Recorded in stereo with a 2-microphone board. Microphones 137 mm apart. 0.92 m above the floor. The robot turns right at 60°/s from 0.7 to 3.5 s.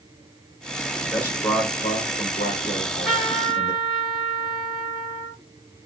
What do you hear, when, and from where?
1.0 s a man speaking: 10° left, 2.5 m; by 3.7 s 155° left, 2.5 m
2.7 s a trumpet: 160° left, 3 m; by 5.4 s 155° right, 3 m